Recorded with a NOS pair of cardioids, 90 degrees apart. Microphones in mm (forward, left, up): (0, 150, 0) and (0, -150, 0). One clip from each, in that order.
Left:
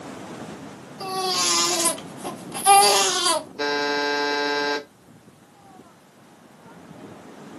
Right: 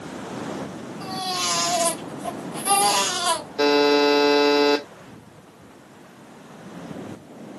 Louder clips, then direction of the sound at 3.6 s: Right 11 dB; 40° right.